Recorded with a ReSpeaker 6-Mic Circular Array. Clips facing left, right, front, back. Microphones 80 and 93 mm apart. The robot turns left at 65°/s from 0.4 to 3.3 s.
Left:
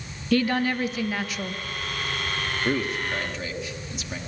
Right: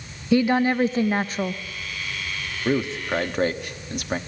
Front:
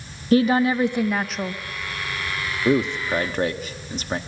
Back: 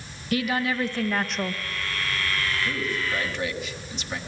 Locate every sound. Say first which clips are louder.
0.3 s a woman speaking: right 4 dB, front 8 dB; 30° right, 0.7 m; by 1.6 s 105° right, 0.7 m
2.6 s a man speaking: right 5 dB, front 8 dB; 5° right, 1.2 m; by 4.2 s 50° right, 1.2 m